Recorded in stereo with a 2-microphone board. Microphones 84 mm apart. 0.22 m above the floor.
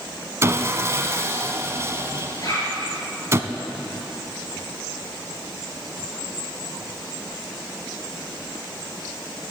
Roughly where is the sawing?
Right.